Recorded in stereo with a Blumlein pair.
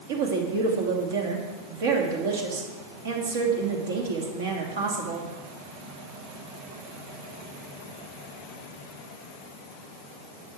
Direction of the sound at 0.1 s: 55° right.